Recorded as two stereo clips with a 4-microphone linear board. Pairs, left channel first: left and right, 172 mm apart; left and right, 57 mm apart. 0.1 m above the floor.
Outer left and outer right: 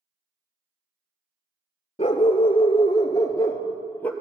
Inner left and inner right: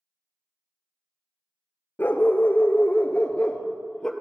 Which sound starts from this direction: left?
A dog barking, at 2.0 s.